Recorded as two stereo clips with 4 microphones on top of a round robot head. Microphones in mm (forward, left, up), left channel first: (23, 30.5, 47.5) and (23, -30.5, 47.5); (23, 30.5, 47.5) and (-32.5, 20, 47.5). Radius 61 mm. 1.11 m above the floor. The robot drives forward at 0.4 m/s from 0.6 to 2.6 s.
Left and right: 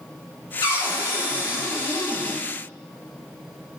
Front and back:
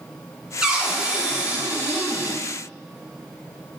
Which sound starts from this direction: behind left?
A cupboard door, at 0.6 s.